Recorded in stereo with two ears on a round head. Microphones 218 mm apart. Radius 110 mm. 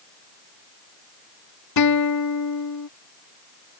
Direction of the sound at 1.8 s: 85° left.